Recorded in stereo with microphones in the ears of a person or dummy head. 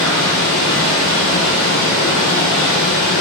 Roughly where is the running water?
Left.